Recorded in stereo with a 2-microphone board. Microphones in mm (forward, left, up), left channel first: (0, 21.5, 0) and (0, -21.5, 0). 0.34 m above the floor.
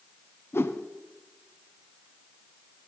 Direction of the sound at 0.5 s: 70° left (ahead or behind).